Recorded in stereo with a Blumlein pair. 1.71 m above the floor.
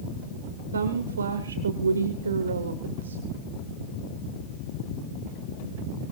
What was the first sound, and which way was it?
A woman speaking, 70° right.